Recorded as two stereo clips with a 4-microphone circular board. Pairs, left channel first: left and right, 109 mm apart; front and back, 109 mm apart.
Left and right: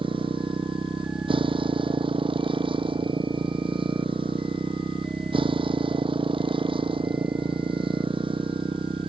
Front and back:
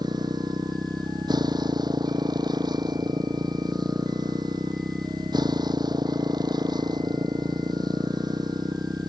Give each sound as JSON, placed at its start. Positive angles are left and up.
{"t": 0.0, "sound": "a motorcycle", "azimuth_deg": -130}